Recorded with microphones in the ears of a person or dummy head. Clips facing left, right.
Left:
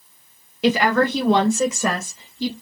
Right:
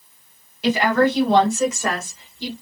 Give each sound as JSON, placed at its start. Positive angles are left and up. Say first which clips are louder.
{"t": 0.6, "sound": "a woman speaking", "louder": "even", "side_deg": 60, "distance_m": 1.3}